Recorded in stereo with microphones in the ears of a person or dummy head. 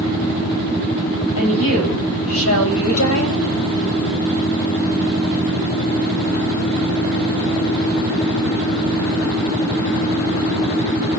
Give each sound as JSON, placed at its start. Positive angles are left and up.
{"t": 1.4, "sound": "a woman speaking", "side_deg": 85, "distance_m": 9.5}